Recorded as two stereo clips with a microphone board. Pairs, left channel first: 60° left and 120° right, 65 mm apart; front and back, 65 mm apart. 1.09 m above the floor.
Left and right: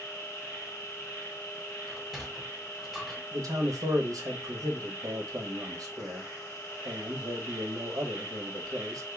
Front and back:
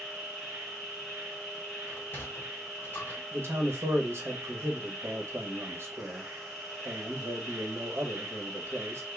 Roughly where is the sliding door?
Ahead right.